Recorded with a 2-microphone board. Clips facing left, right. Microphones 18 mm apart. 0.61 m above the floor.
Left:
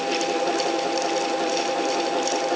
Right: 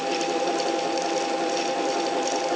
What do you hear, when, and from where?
Only background noise.